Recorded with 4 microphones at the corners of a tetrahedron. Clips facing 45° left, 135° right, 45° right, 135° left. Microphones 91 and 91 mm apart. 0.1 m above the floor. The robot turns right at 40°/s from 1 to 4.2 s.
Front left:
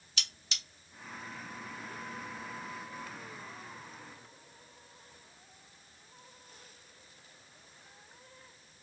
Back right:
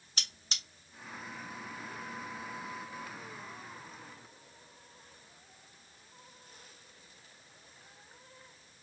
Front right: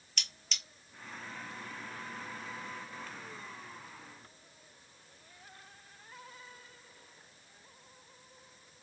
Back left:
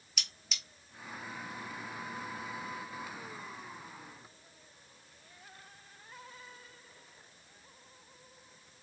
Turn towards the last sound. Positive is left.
turn(degrees=-15)